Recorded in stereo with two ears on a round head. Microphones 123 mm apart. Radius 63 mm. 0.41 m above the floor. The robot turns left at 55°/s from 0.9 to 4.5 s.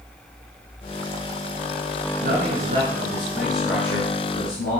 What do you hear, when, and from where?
2.2 s a man speaking: 105° right, 5 m; by 4.8 s 130° left, 5 m